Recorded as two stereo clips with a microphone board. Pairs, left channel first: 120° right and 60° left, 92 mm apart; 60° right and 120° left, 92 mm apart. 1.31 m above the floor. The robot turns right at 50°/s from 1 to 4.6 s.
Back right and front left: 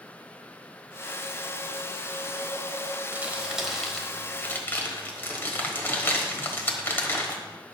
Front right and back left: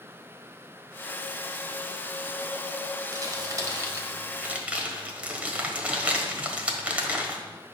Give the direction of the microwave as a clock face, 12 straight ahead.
No microwave in this recording.